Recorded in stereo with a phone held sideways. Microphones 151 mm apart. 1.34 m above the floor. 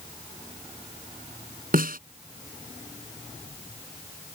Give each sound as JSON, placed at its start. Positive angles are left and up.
{"t": 1.7, "sound": "a snare drum", "side_deg": -75}